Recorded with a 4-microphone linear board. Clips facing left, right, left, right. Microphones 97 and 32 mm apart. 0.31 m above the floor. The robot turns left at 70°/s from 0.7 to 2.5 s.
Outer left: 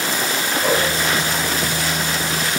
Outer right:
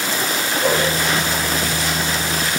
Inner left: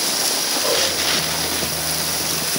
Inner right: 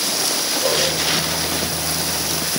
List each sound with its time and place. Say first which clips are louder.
0.6 s a whoosh: outer right 1 dB, inner right 1 dB; 30° right (ahead or behind), 3.5 m; by 0.8 s 40° right (ahead or behind), 3.5 m